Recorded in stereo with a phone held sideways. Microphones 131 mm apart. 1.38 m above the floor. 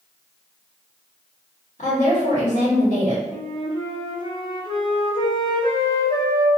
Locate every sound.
1.8 s a woman speaking: 70° left (ahead or behind), 1.2 m
3.3 s a flute: 35° left (ahead or behind), 0.5 m